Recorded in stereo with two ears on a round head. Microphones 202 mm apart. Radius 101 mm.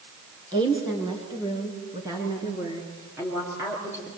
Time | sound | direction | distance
0.5 | a woman speaking | 20° right (ahead or behind) | 5 m